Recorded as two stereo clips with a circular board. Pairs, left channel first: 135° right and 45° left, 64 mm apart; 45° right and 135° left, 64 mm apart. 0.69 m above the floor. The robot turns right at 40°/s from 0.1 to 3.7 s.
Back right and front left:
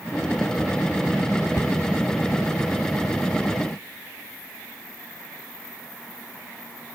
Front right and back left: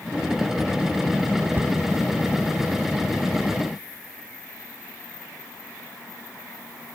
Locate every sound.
1.6 s a cupboard door: 175° right, 1.8 m; by 1.8 s 165° right, 1.8 m